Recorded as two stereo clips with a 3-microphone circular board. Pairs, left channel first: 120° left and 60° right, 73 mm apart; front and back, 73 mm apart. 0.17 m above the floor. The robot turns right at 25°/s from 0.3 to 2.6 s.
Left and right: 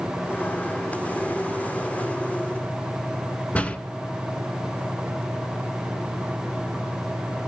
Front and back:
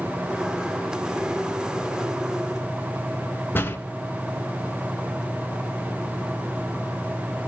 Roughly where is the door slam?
Ahead left.